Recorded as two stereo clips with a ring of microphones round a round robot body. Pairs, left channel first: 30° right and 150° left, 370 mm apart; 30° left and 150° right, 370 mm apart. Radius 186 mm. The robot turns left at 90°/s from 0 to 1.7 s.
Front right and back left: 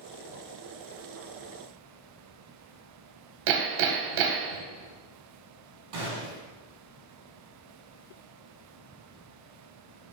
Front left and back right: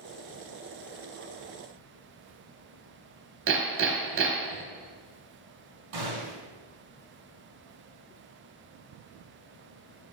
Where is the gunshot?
Straight behind, 4 m.